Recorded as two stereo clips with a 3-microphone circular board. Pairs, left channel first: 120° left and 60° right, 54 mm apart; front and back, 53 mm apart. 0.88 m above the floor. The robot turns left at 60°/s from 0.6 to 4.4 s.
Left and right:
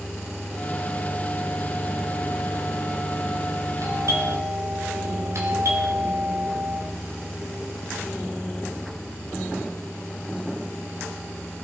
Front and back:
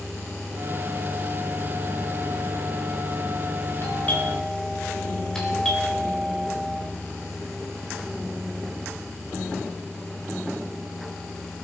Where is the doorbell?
45° right, 4.5 m; by 6.8 s 80° right, 4.5 m.